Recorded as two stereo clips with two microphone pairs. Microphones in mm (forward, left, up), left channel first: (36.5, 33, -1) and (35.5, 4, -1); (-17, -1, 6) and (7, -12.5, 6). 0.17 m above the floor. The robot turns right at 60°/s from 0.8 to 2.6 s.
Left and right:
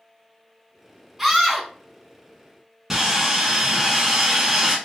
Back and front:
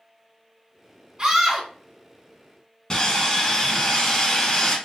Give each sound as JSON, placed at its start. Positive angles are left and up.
{"t": 1.2, "sound": "a scream", "azimuth_deg": -20, "distance_m": 1.8}
{"t": 2.9, "sound": "sawing", "azimuth_deg": -160, "distance_m": 1.2}